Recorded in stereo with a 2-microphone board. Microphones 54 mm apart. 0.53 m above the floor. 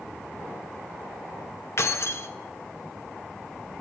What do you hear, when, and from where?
1.8 s keys jangling: 55° left (ahead or behind), 0.6 m